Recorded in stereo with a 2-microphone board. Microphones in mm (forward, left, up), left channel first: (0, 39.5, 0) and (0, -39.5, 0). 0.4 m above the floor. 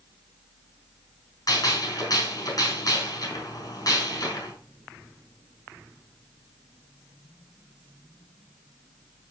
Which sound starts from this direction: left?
A gunshot, at 1.5 s.